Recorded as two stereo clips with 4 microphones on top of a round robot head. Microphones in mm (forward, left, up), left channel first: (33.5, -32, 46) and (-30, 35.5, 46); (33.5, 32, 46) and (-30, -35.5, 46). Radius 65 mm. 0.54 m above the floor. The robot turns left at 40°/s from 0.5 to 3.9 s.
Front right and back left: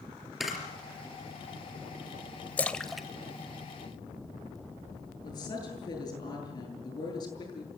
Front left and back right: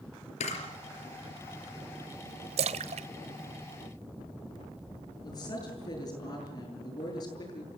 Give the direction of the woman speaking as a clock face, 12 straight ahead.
12 o'clock.